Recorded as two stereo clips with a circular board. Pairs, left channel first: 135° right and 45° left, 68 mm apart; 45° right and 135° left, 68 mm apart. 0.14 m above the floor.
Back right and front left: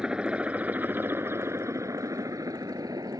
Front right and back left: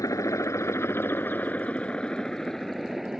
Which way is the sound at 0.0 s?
30° right.